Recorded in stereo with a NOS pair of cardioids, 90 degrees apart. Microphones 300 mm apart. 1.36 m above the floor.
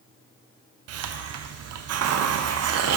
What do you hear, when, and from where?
0.9 s a hiss: 55° right, 0.5 m